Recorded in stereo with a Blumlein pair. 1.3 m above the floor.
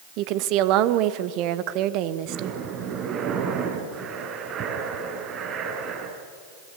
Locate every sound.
0.2 s a woman speaking: 40° right, 1.2 m
2.2 s breathing: 30° right, 9 m